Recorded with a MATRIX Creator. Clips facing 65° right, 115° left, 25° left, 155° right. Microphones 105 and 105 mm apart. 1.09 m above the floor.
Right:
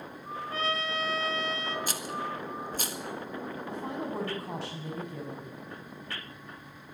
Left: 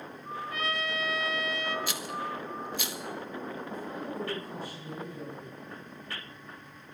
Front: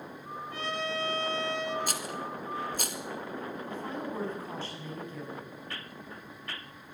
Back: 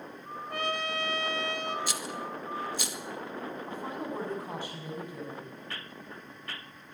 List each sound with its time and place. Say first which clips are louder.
0.5 s a trumpet: right 2 dB, back 2 dB; 125° right, 3 m
1.9 s a rattle: even, even; 20° right, 1.7 m
3.7 s a woman speaking: right 2 dB, even; 80° right, 7.5 m